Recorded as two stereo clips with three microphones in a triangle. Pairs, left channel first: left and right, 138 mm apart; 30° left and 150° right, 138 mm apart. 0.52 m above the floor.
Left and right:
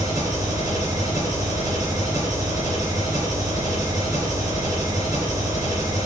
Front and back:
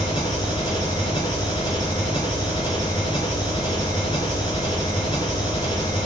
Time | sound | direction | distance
0.0 | an engine running | 30° right | 4 m